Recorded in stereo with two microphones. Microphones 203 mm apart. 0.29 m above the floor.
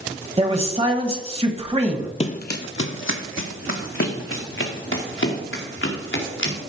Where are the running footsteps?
30° left (ahead or behind), 0.6 m; by 6.6 s 70° left (ahead or behind), 3.5 m.